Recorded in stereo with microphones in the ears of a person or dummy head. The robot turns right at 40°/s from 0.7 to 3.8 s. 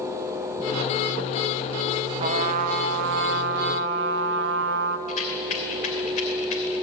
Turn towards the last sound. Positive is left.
turn(degrees=45)  # may be behind; listen again after turning